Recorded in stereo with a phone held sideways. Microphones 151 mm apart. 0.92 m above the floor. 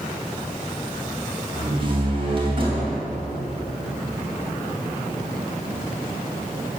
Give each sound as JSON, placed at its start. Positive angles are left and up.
{"t": 1.5, "sound": "a door slam", "side_deg": -35, "distance_m": 3.5}